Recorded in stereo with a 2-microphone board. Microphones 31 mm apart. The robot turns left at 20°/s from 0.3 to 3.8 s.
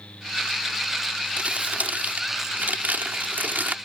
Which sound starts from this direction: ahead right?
Crumpling, at 1.4 s.